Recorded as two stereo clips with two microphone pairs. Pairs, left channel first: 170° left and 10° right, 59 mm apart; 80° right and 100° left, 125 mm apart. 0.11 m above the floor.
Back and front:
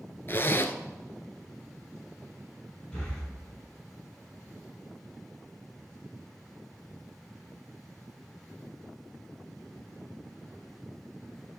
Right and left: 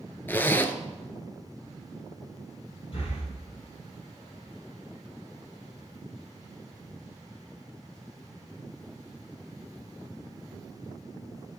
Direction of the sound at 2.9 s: 115° right.